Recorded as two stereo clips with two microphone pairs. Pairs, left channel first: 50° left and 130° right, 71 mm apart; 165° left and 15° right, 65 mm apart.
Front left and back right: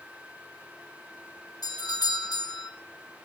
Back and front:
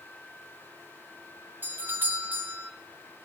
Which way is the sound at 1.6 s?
50° left.